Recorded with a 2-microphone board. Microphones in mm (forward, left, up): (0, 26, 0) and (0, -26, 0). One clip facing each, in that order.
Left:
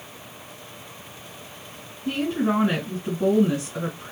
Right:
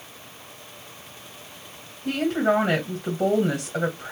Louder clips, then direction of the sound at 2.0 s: Right 2 dB; 60° right (ahead or behind).